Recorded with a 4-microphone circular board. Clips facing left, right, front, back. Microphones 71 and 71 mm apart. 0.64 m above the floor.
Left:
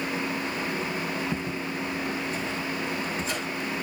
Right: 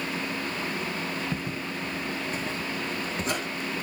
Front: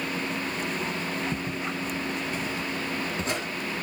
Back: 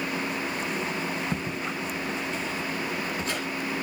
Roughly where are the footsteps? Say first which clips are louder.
Left 2 dB, even; behind.